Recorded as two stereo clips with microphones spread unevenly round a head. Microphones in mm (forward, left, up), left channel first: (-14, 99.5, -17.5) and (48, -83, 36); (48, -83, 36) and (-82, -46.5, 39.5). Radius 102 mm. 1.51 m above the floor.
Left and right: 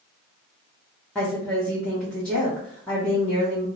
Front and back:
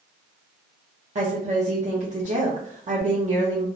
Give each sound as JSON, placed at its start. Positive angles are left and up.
{"t": 1.1, "sound": "a woman speaking", "azimuth_deg": -165, "distance_m": 0.9}